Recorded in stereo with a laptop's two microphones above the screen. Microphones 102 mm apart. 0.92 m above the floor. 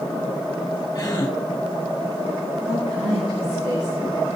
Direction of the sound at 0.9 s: 35° left (ahead or behind).